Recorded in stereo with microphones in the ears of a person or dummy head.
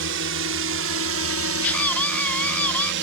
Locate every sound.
0.0 s a drone: 65° right (ahead or behind); by 3.0 s 60° right (ahead or behind)
1.6 s a scream: 5° left (ahead or behind)